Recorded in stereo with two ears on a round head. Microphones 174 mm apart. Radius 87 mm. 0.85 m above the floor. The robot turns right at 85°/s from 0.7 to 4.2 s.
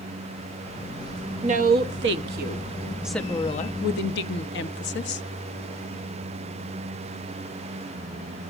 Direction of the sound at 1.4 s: 145° right.